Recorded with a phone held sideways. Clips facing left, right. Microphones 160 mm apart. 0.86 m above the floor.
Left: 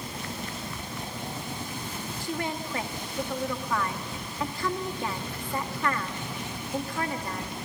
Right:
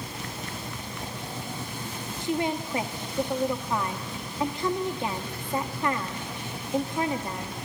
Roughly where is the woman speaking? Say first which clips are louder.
Right 6 dB; centre.